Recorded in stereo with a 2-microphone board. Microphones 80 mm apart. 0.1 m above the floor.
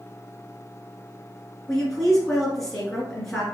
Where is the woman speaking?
5° left (ahead or behind), 1.5 m.